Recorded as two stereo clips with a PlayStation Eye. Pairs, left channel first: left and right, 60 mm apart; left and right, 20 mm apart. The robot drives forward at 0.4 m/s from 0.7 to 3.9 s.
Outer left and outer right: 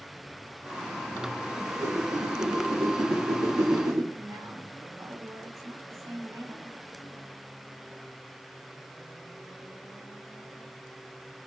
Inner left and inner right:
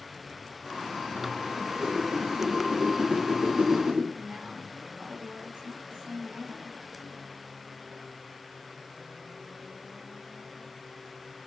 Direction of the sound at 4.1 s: 60° right (ahead or behind).